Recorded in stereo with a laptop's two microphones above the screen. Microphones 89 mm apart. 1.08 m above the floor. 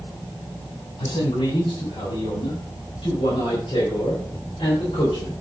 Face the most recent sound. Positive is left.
turn(degrees=80)